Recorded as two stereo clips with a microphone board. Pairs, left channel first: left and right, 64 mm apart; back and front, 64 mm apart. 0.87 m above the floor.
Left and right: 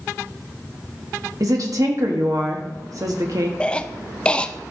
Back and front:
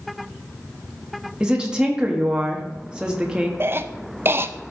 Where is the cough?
25° left, 0.5 m.